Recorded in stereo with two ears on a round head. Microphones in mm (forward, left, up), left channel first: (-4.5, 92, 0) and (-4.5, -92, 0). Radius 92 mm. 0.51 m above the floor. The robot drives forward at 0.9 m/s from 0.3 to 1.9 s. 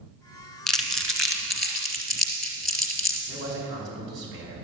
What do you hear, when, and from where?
0.7 s crumpling: 5° left (ahead or behind), 1.5 m; by 3.2 s centre (ahead or behind), 2.5 m
3.3 s a man speaking: 60° right (ahead or behind), 5 m